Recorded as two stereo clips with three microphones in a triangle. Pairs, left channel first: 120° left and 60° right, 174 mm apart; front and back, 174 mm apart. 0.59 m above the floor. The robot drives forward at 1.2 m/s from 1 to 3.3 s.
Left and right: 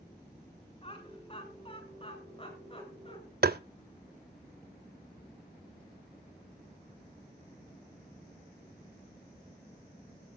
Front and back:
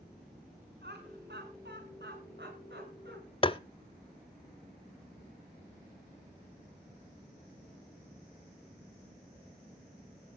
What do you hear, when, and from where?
0.8 s laughter: 175° left, 6.5 m; by 3.2 s straight behind, 9 m
3.4 s tapping: 55° right, 0.5 m